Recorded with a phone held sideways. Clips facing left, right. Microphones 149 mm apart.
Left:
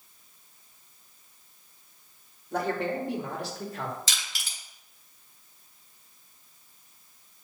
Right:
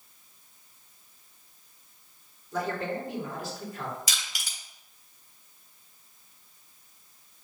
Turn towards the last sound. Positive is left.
turn(degrees=-10)  # may be behind; listen again after turning